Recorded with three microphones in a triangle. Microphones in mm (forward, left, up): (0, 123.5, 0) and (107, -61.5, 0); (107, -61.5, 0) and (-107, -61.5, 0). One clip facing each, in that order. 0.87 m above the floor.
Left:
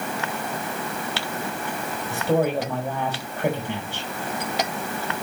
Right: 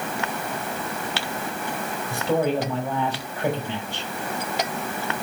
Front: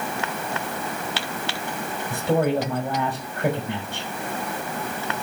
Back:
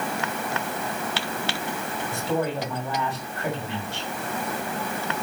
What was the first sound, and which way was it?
A man speaking, 35° left.